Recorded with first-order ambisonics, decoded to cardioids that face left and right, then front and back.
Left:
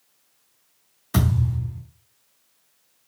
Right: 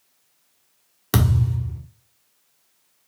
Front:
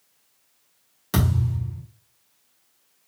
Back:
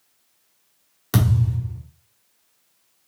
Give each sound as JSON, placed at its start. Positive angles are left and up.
{"t": 1.1, "sound": "a thud", "azimuth_deg": -100, "distance_m": 1.5}